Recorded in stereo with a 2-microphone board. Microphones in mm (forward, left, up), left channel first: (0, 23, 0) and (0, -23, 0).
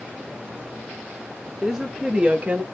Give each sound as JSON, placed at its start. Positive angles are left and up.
{"t": 1.6, "sound": "a woman speaking", "side_deg": -10, "distance_m": 1.2}